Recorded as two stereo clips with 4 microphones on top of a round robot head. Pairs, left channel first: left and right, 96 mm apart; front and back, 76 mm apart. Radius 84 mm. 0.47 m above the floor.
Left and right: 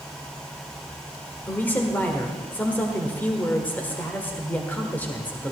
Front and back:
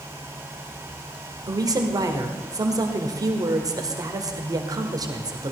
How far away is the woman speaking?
About 1.6 m.